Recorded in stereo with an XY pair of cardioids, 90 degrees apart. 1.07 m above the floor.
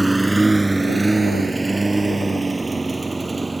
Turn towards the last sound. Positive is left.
turn(degrees=-20)